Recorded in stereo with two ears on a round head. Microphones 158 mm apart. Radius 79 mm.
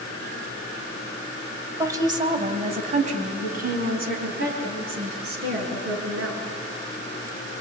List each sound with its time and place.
1.8 s a woman speaking: 15° right (ahead or behind), 2.5 m; by 6.5 s 65° right (ahead or behind), 8 m